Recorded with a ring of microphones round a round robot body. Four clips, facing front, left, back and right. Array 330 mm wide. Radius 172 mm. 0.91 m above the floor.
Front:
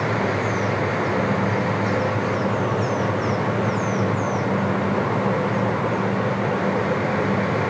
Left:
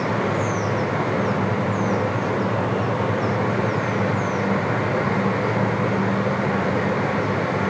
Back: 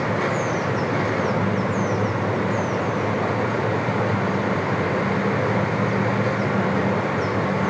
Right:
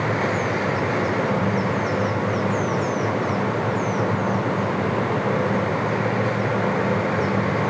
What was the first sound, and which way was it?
Only background noise.